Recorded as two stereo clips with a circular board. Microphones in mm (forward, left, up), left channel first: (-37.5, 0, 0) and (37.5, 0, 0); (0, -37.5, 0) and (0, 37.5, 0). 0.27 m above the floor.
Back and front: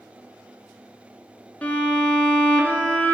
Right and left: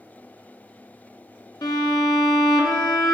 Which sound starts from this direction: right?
A violin, at 1.6 s.